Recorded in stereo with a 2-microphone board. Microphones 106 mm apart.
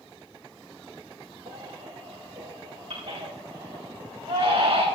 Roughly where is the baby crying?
Right.